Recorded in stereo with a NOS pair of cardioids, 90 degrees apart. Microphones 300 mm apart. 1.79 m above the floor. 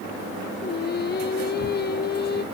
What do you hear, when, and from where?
0.6 s singing: 35° left, 0.9 m